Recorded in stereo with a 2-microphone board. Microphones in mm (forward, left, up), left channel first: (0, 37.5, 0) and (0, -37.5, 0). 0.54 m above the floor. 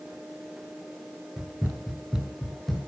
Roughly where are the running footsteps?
Centre.